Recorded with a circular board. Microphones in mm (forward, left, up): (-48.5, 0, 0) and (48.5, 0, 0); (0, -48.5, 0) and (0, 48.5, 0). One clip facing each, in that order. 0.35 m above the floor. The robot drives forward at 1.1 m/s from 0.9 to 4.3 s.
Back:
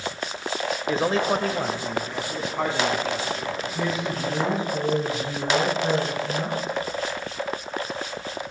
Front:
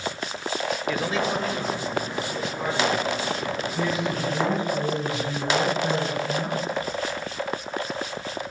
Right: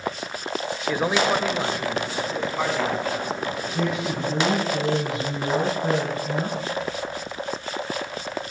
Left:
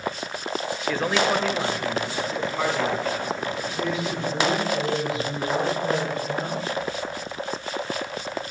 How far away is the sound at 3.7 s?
About 3.5 m.